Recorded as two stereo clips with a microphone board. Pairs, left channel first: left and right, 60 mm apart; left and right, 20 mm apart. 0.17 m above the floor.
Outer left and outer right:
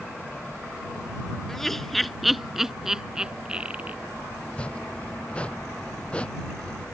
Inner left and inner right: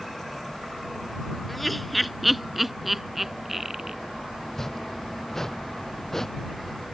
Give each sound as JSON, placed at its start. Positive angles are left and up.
{"t": 1.5, "sound": "laughter", "side_deg": 5}
{"t": 4.4, "sound": "chopping", "side_deg": 20}